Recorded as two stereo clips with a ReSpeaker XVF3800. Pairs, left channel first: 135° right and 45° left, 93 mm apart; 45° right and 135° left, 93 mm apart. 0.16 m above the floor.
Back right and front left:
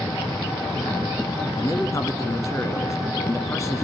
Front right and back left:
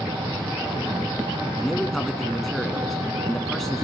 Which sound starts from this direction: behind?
An engine running, at 0.0 s.